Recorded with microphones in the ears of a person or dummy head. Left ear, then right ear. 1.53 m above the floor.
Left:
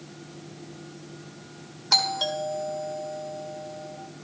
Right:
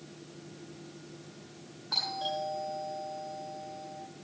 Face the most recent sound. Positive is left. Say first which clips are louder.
# left 9 dB
turn(degrees=65)  # may be behind; listen again after turning